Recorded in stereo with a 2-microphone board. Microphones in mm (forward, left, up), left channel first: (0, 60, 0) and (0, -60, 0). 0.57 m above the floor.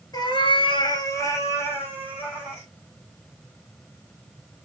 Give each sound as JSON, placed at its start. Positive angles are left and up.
{"t": 0.1, "sound": "a cat meowing", "side_deg": 35, "distance_m": 0.8}